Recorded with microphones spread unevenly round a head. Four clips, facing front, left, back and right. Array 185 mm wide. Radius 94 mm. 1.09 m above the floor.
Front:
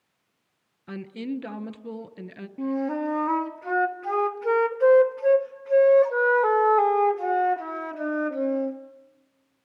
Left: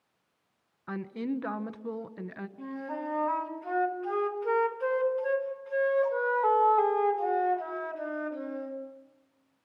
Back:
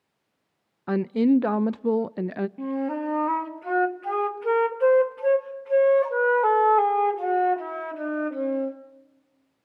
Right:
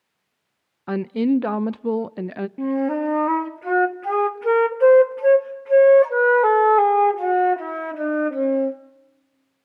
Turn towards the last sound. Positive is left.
turn(degrees=-80)